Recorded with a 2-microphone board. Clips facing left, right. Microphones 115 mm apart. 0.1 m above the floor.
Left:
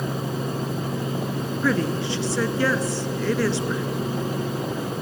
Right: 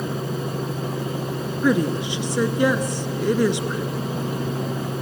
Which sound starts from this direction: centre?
A woman speaking, at 1.6 s.